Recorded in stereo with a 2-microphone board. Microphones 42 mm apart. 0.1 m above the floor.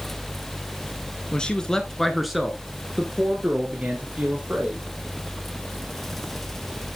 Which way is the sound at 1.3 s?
20° left (ahead or behind).